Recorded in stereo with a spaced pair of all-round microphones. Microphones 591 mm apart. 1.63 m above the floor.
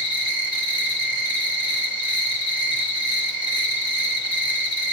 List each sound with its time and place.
0.0 s an insect: 50° left (ahead or behind), 3 m